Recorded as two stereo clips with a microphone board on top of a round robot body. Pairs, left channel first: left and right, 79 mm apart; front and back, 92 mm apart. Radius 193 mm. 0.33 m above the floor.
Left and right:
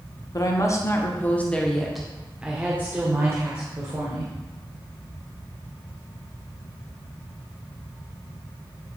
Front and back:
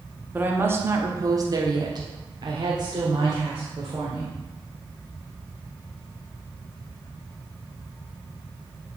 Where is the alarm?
No alarm in this recording.